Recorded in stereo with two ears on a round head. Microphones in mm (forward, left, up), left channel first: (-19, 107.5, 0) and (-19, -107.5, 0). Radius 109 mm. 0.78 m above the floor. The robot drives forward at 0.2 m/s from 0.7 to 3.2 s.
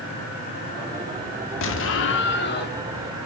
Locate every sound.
1.6 s an explosion: 55° left (ahead or behind), 0.6 m; by 2.8 s 40° left (ahead or behind), 0.8 m